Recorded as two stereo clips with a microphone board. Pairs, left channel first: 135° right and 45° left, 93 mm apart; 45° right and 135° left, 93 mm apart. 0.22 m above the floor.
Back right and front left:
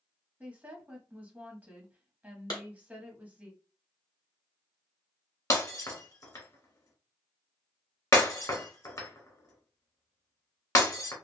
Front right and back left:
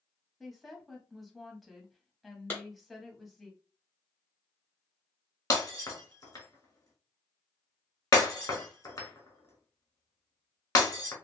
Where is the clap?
110° right, 1.4 m.